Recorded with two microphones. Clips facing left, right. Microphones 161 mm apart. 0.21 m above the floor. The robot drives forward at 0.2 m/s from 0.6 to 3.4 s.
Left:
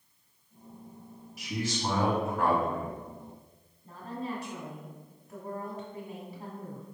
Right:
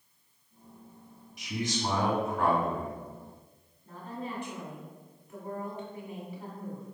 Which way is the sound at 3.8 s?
40° left (ahead or behind).